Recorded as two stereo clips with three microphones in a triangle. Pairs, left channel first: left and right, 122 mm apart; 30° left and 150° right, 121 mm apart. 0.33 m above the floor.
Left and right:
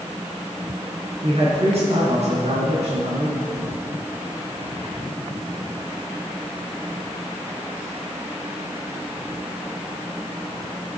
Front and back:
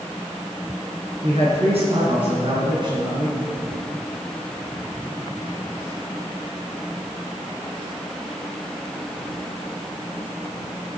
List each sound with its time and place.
1.2 s a man speaking: 120° right, 3.5 m; by 3.4 s 100° right, 3 m